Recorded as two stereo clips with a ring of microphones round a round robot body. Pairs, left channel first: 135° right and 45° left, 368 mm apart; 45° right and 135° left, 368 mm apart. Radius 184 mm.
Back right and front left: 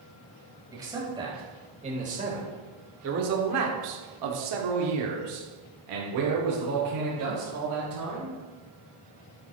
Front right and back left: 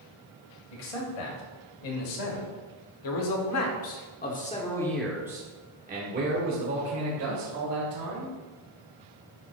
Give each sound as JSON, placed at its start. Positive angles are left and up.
{"t": 0.7, "sound": "a man speaking", "azimuth_deg": -35, "distance_m": 3.5}